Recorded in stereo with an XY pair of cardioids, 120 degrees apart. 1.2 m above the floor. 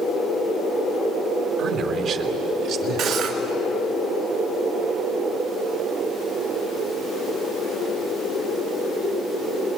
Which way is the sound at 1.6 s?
60° right.